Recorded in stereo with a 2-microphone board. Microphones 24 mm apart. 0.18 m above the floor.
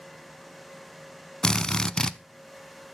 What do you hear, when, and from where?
1.4 s a drill: 30° left (ahead or behind), 0.5 m